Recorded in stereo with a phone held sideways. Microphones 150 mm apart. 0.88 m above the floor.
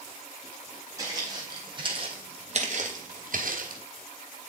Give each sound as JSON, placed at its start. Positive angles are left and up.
{"t": 1.0, "sound": "footsteps", "side_deg": -25, "distance_m": 3.5}